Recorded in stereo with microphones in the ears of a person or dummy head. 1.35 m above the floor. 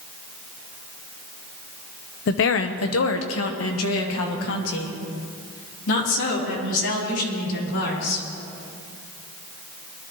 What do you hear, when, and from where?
2.3 s a woman speaking: 55° left (ahead or behind), 0.8 m; by 8.2 s 75° left (ahead or behind), 5 m